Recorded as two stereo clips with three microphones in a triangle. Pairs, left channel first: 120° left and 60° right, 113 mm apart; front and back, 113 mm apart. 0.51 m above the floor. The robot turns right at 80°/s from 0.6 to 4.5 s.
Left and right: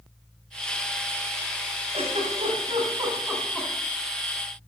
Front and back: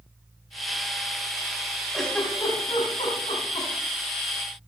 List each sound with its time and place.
1.9 s a giggle: 90° right, 3.5 m; by 3.7 s 50° left, 3.5 m